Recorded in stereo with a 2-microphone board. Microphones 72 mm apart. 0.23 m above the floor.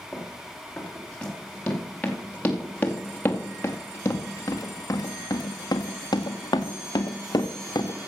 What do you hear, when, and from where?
0.1 s running footsteps: 10° left (ahead or behind), 4 m; by 8.1 s 60° left (ahead or behind), 1.7 m